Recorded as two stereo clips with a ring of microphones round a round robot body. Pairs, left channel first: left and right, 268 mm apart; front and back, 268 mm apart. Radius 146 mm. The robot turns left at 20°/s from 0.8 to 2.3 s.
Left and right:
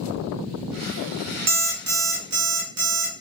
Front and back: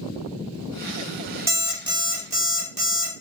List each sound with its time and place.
1.5 s an alarm clock: 100° right, 1.1 m; by 3.1 s 120° right, 1.1 m